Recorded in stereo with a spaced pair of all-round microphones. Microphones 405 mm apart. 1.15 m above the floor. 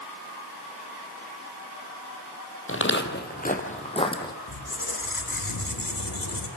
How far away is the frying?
No frying in this recording.